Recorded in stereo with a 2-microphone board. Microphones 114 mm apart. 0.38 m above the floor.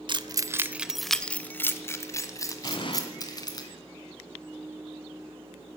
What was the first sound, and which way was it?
Keys jangling, 45° right (ahead or behind).